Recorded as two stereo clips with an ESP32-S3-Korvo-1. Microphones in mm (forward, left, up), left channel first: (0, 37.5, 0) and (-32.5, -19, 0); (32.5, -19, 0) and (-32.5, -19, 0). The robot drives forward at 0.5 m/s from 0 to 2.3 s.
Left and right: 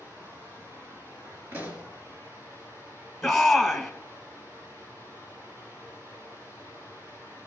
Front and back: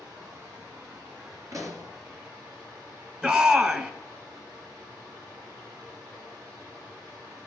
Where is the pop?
170° right, 2.5 m; by 1.9 s 175° right, 2.5 m.